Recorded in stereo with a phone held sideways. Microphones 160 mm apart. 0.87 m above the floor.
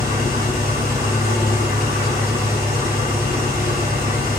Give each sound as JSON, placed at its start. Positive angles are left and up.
{"t": 0.0, "sound": "an engine running", "side_deg": -70, "distance_m": 3.0}